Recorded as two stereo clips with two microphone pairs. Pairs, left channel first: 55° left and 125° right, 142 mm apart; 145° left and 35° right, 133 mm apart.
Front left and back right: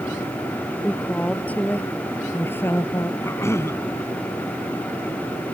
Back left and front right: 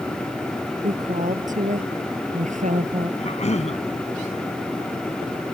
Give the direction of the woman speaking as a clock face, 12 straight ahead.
1 o'clock.